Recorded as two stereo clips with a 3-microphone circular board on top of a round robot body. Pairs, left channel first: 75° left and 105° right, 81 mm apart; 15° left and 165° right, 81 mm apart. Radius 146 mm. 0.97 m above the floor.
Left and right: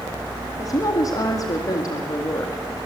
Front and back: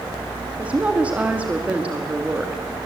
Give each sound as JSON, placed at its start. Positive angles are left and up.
{"t": 0.6, "sound": "a woman speaking", "azimuth_deg": 120, "distance_m": 2.5}